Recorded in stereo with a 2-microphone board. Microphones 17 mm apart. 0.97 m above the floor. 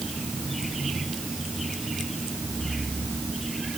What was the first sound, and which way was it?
Only background noise.